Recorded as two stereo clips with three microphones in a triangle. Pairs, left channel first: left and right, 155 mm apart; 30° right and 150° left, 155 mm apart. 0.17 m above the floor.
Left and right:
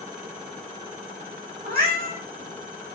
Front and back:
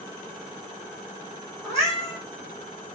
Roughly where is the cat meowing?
Behind right.